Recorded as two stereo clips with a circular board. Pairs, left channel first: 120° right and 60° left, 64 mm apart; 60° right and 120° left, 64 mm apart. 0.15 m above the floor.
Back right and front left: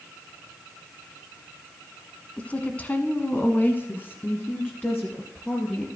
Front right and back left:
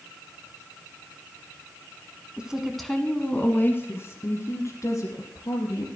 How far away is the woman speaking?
About 1.2 m.